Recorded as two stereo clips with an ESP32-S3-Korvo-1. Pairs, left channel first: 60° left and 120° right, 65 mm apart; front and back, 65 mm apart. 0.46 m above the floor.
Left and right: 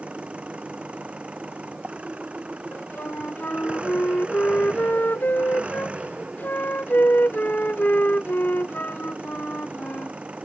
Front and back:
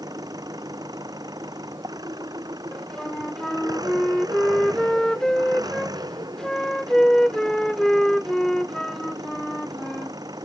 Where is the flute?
70° left.